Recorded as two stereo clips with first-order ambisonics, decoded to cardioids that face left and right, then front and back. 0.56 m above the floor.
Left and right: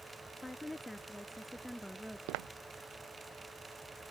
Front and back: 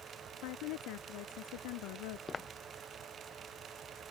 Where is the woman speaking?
5° left; by 2.2 s straight ahead.